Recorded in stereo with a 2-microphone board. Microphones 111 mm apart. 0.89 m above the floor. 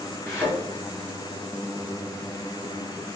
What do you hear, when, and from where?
0.3 s a thud: 25° left (ahead or behind), 1.8 m